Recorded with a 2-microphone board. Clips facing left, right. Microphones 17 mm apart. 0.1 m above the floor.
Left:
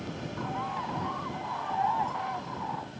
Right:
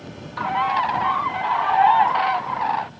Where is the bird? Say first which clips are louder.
Right 14 dB; 55° right (ahead or behind).